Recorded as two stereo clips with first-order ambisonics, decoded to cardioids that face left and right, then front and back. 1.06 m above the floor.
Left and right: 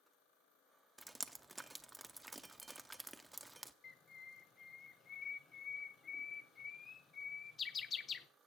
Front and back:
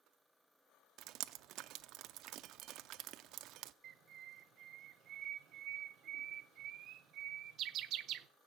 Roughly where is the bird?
Behind left.